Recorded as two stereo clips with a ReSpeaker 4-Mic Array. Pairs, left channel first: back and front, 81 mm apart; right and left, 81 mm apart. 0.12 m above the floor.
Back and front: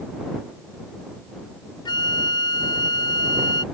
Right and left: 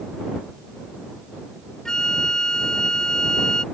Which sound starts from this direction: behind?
A flute, at 1.9 s.